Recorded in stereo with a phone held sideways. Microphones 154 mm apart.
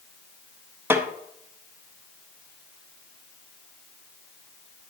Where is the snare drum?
15° right (ahead or behind), 1.0 m.